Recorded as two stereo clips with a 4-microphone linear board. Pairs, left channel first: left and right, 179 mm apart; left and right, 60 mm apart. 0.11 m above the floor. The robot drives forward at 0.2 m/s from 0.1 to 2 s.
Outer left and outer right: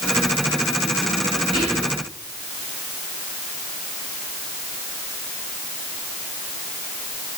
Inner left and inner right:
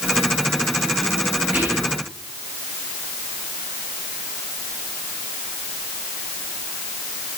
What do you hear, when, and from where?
1.5 s whispering: 30° right (ahead or behind), 1.8 m